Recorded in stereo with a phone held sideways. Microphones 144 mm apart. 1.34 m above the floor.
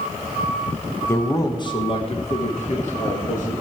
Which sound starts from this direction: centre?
A man speaking, at 1.1 s.